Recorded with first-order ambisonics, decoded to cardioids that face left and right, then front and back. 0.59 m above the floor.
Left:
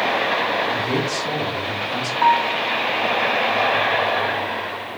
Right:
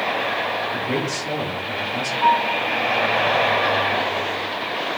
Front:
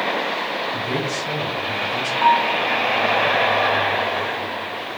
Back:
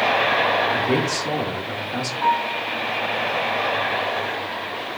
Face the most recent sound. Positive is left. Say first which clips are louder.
# left 1 dB, front 5 dB
turn(degrees=60)